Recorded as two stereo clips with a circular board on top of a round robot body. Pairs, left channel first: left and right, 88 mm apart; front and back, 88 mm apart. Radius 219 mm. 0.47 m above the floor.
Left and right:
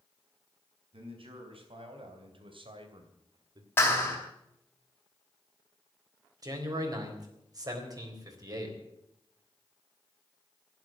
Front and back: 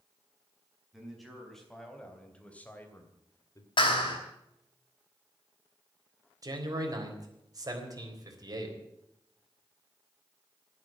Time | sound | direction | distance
0.9 | a man speaking | 90° right | 4.5 m
3.8 | a clap | 25° left | 5 m
6.4 | a man speaking | 135° right | 4 m